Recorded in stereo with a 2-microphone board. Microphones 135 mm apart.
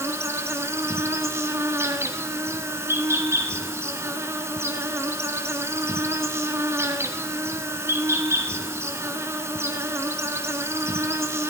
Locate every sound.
0.0 s an insect: 20° right (ahead or behind), 1.0 m